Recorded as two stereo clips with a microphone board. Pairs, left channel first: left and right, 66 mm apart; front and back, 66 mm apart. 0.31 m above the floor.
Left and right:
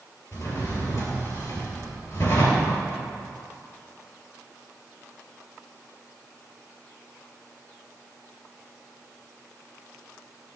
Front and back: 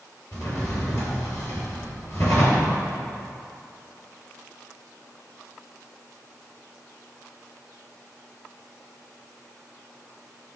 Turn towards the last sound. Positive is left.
turn(degrees=40)